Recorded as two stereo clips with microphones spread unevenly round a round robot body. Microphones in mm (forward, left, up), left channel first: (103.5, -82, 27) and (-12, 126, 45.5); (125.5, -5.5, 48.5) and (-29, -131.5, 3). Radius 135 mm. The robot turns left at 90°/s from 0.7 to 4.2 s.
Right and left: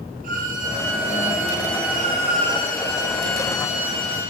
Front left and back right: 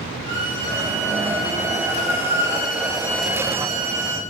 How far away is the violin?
About 4.5 m.